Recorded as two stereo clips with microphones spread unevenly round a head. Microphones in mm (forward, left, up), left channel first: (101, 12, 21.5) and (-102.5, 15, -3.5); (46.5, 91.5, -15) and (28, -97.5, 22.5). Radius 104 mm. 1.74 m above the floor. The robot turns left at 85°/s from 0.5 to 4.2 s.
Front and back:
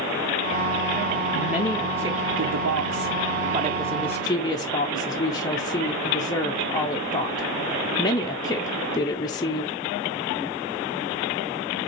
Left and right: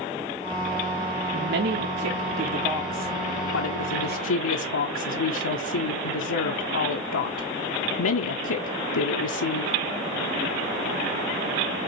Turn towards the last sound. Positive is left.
turn(degrees=70)